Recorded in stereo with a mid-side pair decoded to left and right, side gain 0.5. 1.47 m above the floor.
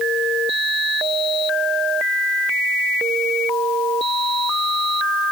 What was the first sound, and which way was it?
Only background noise.